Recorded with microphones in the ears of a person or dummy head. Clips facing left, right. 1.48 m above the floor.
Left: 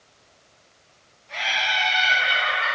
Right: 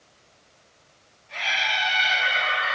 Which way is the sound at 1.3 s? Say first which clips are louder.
Left 2 dB; 65° left (ahead or behind).